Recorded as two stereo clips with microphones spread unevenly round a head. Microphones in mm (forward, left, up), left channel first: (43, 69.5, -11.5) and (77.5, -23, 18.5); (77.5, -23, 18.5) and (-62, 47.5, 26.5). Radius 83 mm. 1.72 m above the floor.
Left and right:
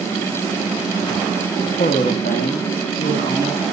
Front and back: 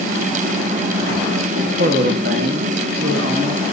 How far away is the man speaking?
About 0.9 m.